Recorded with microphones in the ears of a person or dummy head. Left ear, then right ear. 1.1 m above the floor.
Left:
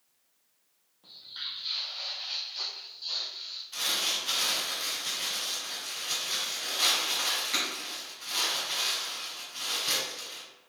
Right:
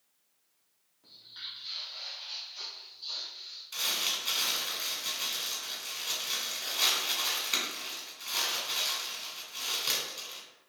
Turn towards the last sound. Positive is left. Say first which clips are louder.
# left 2 dB
turn(degrees=-25)  # may be behind; listen again after turning